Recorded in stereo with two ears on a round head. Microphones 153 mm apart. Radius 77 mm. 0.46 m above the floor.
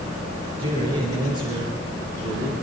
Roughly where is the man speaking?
Right.